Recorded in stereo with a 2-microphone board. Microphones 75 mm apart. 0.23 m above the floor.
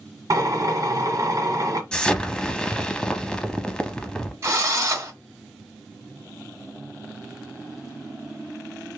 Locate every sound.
0.3 s a drill: 50° right (ahead or behind), 1.0 m
1.9 s an explosion: 10° left (ahead or behind), 0.5 m
4.4 s a drill: 40° right (ahead or behind), 1.6 m